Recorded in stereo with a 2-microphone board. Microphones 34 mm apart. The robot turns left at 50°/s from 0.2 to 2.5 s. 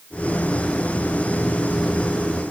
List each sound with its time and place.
Only background noise.